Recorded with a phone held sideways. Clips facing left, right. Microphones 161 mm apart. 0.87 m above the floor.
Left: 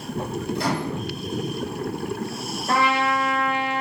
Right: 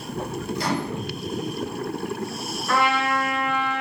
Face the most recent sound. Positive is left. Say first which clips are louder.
# left 1 dB
turn(degrees=45)  # may be behind; listen again after turning